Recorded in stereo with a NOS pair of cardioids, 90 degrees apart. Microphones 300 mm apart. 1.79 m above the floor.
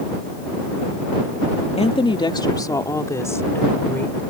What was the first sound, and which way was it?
A woman speaking, 20° left.